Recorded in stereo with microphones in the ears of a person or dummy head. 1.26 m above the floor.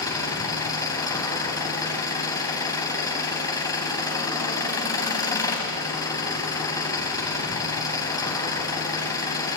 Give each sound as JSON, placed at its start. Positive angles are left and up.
{"t": 0.0, "sound": "an engine running", "side_deg": 20, "distance_m": 2.5}